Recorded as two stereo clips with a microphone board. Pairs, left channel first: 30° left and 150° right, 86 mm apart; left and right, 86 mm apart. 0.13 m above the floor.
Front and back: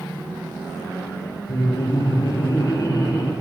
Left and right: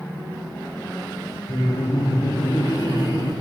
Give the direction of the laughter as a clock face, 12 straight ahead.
10 o'clock.